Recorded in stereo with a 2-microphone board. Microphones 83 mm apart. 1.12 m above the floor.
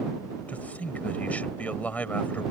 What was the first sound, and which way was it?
A man speaking, 20° left (ahead or behind).